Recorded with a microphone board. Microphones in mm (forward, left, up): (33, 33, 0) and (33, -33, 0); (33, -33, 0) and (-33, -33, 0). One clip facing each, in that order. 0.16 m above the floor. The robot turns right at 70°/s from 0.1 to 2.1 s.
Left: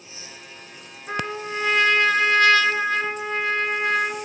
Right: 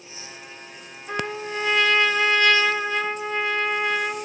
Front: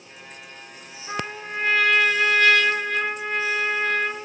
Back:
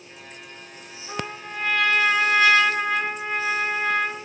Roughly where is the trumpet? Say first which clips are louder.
Even, front 2 dB; ahead left.